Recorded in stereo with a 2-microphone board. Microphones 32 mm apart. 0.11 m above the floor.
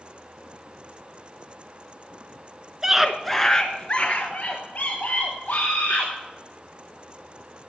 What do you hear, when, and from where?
2.8 s a scream: 20° right (ahead or behind), 1.1 m; by 6.1 s 60° left (ahead or behind), 3 m